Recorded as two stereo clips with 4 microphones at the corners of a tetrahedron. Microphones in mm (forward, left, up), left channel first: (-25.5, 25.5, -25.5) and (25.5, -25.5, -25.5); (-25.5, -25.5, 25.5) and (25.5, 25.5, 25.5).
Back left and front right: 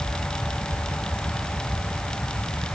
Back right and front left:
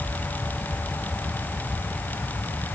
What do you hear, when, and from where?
Only background noise.